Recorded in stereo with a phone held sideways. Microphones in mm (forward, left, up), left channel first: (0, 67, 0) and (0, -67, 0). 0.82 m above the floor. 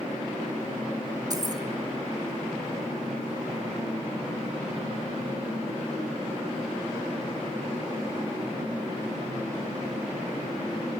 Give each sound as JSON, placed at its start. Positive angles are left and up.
{"t": 1.3, "sound": "keys jangling", "side_deg": -30, "distance_m": 1.4}